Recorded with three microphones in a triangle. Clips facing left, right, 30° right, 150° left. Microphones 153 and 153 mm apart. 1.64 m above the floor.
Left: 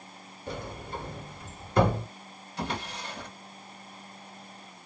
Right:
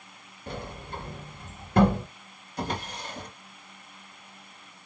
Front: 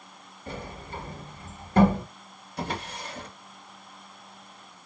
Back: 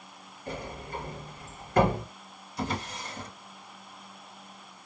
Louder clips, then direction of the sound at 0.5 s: Left 1 dB, back 1 dB; 85° right.